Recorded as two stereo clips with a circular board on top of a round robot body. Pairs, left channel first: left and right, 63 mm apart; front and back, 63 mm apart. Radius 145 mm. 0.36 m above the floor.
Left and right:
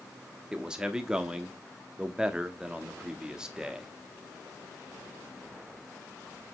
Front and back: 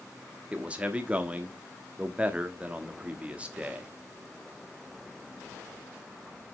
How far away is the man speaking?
About 1.3 m.